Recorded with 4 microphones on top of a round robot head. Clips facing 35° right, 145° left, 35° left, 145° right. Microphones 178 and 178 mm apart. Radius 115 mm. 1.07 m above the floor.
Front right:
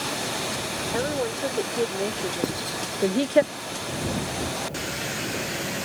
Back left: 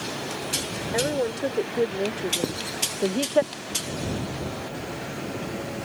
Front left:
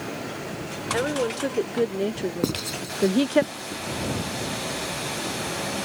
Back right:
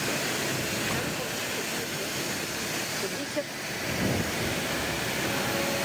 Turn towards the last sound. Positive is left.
turn(degrees=55)